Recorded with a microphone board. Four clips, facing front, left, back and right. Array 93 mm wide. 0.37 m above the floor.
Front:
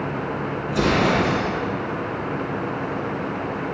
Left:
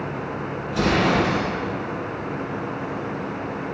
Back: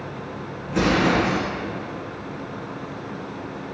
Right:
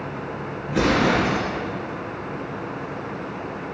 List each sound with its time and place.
0.7 s an explosion: 120° right, 2.5 m